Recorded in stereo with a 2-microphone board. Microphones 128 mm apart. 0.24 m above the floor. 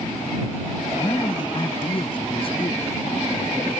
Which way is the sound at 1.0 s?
30° left (ahead or behind).